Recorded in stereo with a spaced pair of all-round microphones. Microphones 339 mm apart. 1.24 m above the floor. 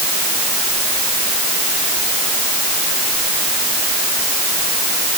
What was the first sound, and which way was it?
Only background noise.